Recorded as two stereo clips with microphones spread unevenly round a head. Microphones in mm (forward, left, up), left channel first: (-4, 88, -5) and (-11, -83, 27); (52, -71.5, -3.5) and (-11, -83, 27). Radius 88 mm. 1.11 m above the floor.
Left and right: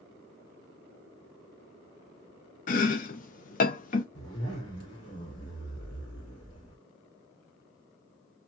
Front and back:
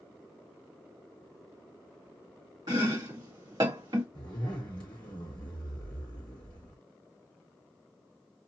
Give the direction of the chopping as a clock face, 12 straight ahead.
8 o'clock.